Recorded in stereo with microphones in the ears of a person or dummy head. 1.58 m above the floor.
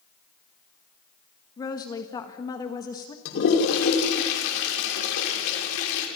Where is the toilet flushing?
70° left (ahead or behind), 5.5 m.